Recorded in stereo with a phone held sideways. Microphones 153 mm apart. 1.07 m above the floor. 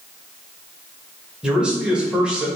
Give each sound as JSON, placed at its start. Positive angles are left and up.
{"t": 1.4, "sound": "a man speaking", "side_deg": -5, "distance_m": 1.5}